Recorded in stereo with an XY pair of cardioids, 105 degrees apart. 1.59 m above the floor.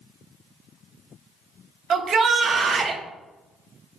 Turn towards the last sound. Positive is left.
turn(degrees=-45)